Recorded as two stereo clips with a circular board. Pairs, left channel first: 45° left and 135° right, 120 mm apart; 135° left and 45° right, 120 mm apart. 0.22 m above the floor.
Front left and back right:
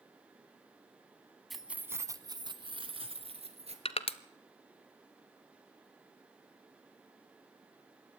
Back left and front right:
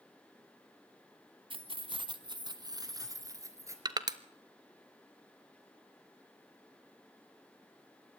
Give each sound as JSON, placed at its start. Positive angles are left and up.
{"t": 1.5, "sound": "keys jangling", "azimuth_deg": -45, "distance_m": 1.0}
{"t": 3.9, "sound": "crushing", "azimuth_deg": 10, "distance_m": 0.8}